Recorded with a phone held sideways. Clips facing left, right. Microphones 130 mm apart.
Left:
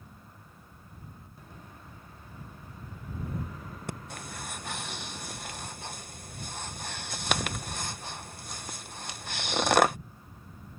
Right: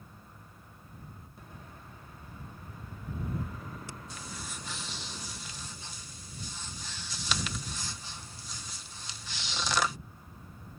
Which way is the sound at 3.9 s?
55° left (ahead or behind).